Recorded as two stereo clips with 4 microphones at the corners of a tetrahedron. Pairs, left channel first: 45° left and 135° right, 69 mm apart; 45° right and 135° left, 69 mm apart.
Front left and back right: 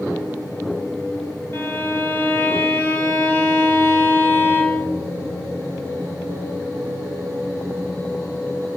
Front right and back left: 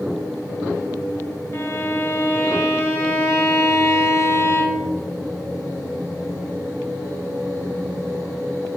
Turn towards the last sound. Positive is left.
turn(degrees=-5)